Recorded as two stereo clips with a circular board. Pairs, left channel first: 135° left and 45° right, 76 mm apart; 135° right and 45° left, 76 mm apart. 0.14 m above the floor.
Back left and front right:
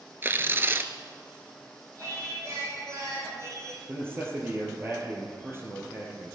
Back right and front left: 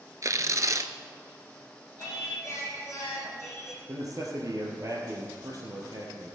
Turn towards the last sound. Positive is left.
turn(degrees=10)